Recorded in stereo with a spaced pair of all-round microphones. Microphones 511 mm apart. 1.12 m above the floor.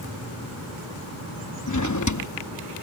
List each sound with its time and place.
1.7 s a drawer: 35° left (ahead or behind)